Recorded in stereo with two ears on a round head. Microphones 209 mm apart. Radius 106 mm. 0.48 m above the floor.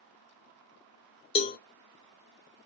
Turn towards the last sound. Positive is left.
turn(degrees=25)  # may be behind; listen again after turning